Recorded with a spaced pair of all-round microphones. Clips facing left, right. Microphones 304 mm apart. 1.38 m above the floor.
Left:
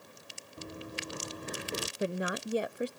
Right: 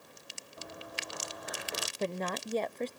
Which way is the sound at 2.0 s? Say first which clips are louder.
Left 1 dB; 10° left (ahead or behind).